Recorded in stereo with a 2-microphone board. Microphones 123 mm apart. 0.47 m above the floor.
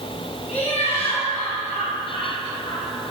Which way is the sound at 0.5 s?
65° left (ahead or behind).